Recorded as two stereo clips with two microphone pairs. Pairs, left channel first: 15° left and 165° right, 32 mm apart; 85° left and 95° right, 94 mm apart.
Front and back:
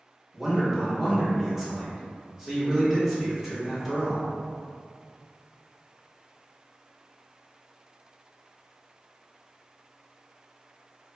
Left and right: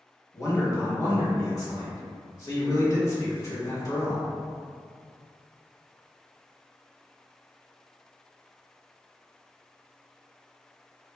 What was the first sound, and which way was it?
A man speaking, 115° left.